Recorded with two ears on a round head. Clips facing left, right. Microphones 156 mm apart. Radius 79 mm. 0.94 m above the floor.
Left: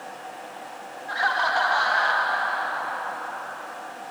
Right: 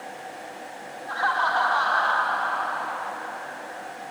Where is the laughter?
20° left (ahead or behind), 1.8 m; by 4.0 s 20° right (ahead or behind), 1.0 m.